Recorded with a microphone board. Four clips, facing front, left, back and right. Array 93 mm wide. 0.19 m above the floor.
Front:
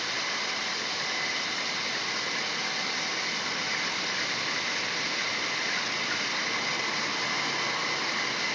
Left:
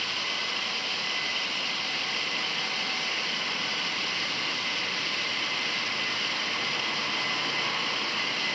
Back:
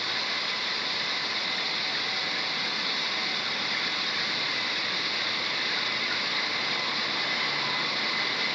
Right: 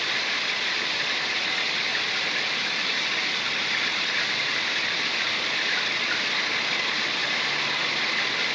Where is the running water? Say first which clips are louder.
Right 5 dB, even; 75° right.